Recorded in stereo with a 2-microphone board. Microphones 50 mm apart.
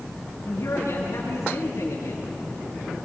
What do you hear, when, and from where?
0.5 s a man speaking: 70° left (ahead or behind), 7 m